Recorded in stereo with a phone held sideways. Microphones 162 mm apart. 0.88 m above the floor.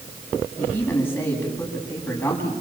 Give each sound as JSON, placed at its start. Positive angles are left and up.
{"t": 0.6, "sound": "a man speaking", "side_deg": 10, "distance_m": 8.5}